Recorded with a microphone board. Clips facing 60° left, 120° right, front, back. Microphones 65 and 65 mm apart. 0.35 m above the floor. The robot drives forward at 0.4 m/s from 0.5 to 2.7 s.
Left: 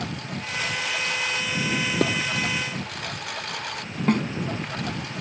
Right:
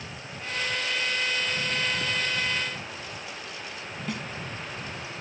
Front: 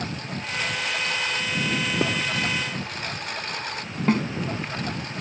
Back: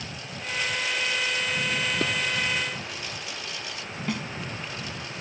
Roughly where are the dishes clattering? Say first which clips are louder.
Left 8 dB, front 4 dB; left.